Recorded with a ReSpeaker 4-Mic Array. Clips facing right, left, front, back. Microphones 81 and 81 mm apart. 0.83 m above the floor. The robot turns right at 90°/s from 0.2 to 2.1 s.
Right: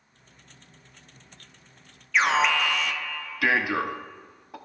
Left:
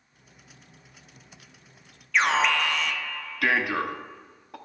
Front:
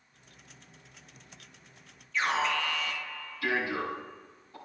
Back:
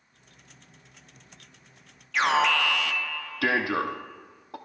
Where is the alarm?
Straight behind, 0.7 m.